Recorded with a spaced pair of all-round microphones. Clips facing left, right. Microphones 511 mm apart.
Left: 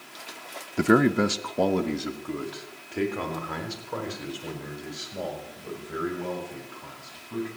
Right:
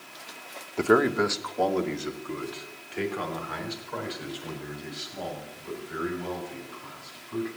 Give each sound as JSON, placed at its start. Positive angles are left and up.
{"t": 0.8, "sound": "a man speaking", "side_deg": 35, "distance_m": 0.7}